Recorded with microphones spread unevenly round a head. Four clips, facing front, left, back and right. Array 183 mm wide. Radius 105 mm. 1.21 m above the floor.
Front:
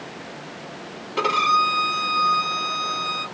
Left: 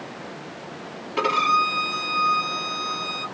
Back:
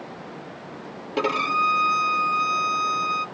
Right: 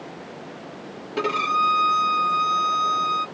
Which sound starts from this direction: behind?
A violin, at 1.2 s.